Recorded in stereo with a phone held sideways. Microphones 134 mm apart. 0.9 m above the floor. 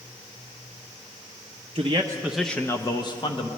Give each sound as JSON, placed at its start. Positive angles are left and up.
{"t": 1.8, "sound": "a man speaking", "side_deg": -45, "distance_m": 0.5}